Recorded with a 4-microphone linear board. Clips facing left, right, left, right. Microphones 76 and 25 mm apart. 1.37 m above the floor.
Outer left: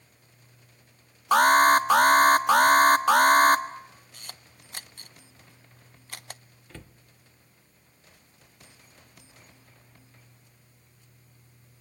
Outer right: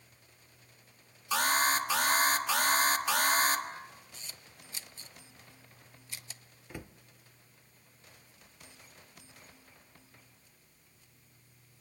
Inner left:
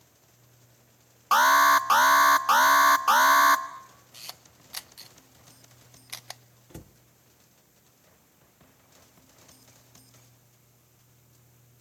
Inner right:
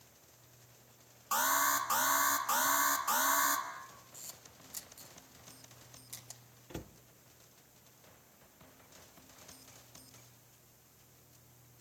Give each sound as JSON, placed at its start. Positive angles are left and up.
{"t": 1.3, "sound": "an alarm", "side_deg": 50, "distance_m": 1.4}
{"t": 4.1, "sound": "a camera shutter", "side_deg": 55, "distance_m": 0.6}
{"t": 6.7, "sound": "a cupboard door", "side_deg": -15, "distance_m": 0.7}